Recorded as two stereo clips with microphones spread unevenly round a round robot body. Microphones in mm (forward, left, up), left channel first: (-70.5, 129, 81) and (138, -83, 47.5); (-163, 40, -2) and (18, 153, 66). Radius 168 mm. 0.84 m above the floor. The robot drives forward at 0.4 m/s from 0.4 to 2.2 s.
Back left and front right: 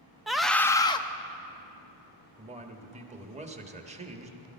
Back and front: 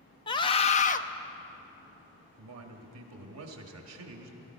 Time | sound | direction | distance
0.3 | a scream | 125° right | 0.5 m
2.4 | a man speaking | 20° left | 1.5 m